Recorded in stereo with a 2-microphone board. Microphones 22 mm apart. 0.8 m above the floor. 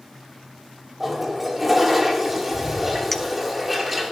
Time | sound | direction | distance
1.0 | a toilet flushing | 10° right (ahead or behind) | 2.5 m
3.1 | a clink | 10° left (ahead or behind) | 0.6 m